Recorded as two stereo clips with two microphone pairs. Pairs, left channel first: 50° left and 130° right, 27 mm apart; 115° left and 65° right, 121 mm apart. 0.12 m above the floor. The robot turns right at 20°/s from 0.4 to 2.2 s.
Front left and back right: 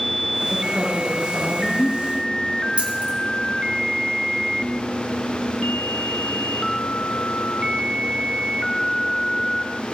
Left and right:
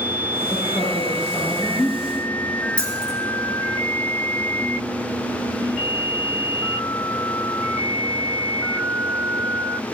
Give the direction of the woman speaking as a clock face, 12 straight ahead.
7 o'clock.